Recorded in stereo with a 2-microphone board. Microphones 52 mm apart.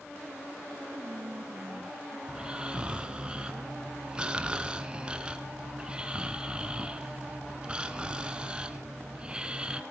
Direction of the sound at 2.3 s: 15° right (ahead or behind).